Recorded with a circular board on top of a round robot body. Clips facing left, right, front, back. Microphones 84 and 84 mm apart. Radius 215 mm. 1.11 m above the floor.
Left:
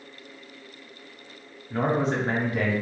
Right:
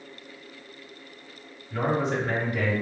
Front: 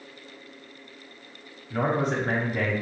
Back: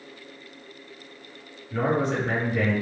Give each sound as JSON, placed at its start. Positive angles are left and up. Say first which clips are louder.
{"t": 1.7, "sound": "a man speaking", "louder": "left 1 dB, back 1 dB", "azimuth_deg": 40, "distance_m": 1.1}